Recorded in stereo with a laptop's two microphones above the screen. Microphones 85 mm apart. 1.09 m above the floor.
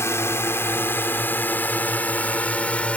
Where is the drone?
30° left (ahead or behind); by 3.0 s 15° left (ahead or behind).